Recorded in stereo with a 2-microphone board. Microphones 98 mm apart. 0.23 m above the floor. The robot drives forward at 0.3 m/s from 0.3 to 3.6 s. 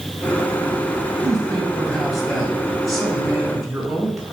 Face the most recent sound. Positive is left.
turn(degrees=0)  # may be behind; listen again after turning